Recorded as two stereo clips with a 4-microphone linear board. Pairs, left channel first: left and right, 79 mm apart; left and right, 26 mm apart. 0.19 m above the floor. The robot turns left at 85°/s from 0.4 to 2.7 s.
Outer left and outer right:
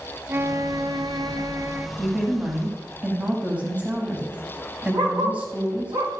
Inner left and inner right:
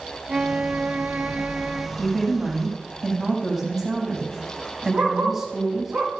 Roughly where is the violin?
Ahead right.